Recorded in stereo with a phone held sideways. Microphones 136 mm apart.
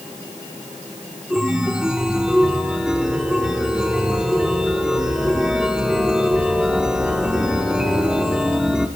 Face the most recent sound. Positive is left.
turn(degrees=-5)  # may be behind; listen again after turning